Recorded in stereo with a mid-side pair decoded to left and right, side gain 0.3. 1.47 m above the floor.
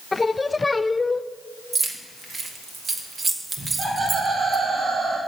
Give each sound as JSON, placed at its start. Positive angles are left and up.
{"t": 0.1, "sound": "singing", "azimuth_deg": 30, "distance_m": 0.5}
{"t": 1.7, "sound": "keys jangling", "azimuth_deg": -55, "distance_m": 1.9}
{"t": 3.6, "sound": "laughter", "azimuth_deg": -70, "distance_m": 4.0}